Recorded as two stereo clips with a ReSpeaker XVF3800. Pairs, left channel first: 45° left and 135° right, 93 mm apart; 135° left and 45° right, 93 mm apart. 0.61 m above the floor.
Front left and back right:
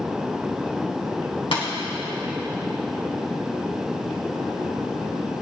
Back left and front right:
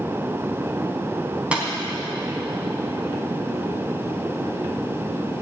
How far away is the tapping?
About 4.5 m.